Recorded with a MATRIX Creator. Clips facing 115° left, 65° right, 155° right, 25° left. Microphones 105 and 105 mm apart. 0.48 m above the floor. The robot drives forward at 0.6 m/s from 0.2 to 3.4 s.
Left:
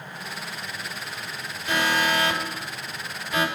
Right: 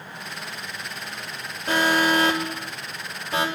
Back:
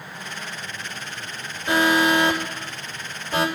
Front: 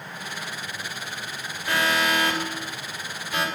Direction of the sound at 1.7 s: 95° right.